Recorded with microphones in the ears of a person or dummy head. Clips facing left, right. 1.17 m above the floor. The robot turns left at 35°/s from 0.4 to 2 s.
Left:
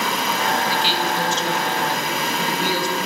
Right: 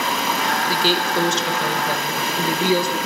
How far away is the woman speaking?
About 1.1 m.